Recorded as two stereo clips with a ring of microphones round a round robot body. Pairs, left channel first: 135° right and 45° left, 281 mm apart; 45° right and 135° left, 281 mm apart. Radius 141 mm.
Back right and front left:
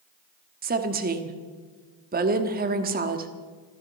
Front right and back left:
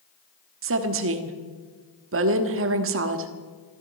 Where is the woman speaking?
100° left, 1.3 m.